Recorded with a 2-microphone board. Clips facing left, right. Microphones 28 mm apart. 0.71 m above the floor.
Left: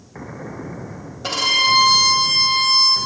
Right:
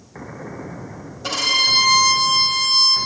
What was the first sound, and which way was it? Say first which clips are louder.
A violin: left 1 dB; 10° left (ahead or behind).